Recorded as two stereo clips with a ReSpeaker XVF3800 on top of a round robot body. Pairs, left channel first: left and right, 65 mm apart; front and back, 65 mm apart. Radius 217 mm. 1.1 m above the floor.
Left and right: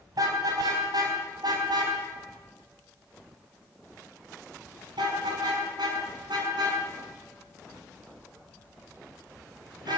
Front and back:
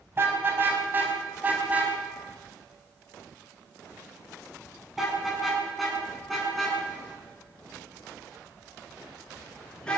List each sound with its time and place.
0.1 s a car horn: 125° right, 5 m; by 10.0 s 80° right, 9.5 m